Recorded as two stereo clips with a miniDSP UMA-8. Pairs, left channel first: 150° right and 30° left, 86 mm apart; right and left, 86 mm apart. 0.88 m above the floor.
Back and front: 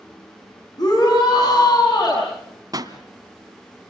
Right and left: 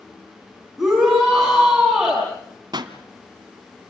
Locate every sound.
0.8 s a shout: 175° left, 7 m
2.7 s a pop: 70° left, 1.6 m